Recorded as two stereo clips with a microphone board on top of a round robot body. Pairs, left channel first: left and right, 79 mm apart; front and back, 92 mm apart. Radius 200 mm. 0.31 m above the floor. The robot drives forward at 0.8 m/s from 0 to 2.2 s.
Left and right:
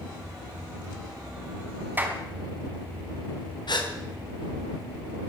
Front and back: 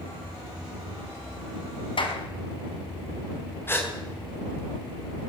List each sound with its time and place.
2.0 s a clap: 20° right, 4 m; by 2.2 s 25° right, 4 m
3.7 s a gasp: 65° left, 4 m